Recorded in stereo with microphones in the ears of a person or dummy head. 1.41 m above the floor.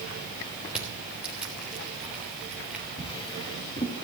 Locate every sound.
0.7 s crushing: 5° right (ahead or behind), 3 m
3.0 s a drawer: 25° left (ahead or behind), 1.9 m